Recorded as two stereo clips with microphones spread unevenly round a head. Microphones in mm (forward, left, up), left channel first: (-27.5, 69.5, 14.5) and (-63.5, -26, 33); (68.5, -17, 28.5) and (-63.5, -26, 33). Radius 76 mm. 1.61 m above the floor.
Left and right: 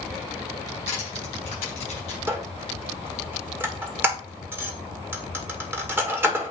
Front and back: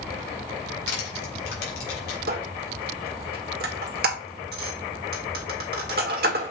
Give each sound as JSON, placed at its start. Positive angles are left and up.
{"t": 0.9, "sound": "crushing", "azimuth_deg": 15, "distance_m": 4.0}
{"t": 2.3, "sound": "a squeak", "azimuth_deg": -175, "distance_m": 1.7}